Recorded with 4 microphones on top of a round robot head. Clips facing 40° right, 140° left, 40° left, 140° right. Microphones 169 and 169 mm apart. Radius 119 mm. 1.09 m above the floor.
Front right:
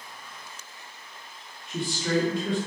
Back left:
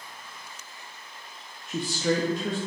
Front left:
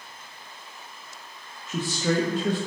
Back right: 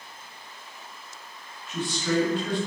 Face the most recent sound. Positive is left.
turn(degrees=90)